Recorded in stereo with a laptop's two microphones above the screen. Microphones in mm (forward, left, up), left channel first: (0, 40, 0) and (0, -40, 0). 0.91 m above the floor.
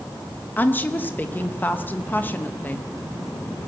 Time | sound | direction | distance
0.6 | a woman speaking | 20° left (ahead or behind) | 0.8 m